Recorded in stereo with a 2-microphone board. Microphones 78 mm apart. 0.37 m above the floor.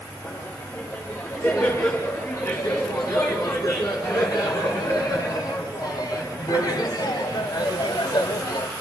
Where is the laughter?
40° left (ahead or behind), 6 m; by 8.7 s 55° left (ahead or behind), 1.5 m.